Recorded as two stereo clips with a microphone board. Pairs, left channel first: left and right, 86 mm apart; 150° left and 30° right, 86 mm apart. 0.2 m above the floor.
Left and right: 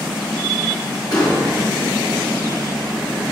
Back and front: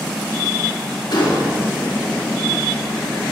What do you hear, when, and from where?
1.1 s a gunshot: 125° left, 4 m